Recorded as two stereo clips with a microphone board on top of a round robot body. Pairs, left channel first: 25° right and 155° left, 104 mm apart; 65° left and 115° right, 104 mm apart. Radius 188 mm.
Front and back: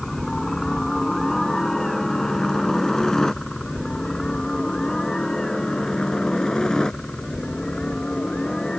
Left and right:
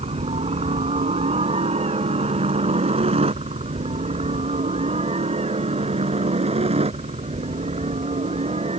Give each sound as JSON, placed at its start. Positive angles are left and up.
{"t": 0.0, "sound": "a helicopter", "azimuth_deg": -110}